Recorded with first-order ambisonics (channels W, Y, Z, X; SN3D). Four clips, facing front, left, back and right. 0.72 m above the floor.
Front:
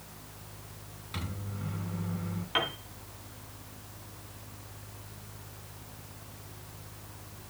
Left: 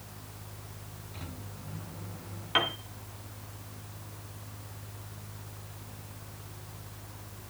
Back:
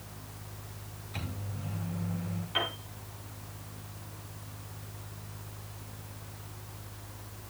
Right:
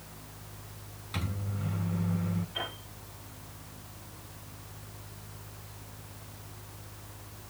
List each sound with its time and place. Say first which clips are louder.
1.1 s a microwave: right 10 dB, front 1 dB; 55° right, 7 m
2.5 s a piano: left 9 dB, front 1 dB; 70° left, 2.5 m